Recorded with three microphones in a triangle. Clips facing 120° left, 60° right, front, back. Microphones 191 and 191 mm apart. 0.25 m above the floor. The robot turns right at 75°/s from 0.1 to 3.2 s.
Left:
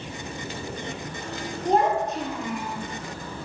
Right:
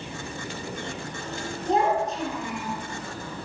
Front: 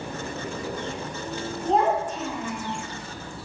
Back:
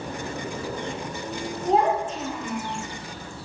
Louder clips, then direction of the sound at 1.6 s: Left 1 dB, back 1 dB; 90° left.